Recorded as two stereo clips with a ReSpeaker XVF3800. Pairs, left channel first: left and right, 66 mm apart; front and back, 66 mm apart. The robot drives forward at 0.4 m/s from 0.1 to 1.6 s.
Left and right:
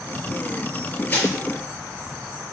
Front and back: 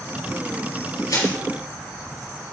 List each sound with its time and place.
1.1 s crushing: 25° left, 4.5 m